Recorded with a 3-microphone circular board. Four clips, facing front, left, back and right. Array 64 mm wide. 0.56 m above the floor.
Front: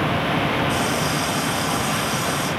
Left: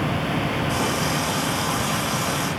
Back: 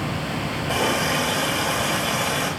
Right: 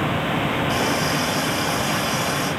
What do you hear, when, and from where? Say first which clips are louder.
0.7 s a running tap: right 2 dB, even; 160° right, 8 m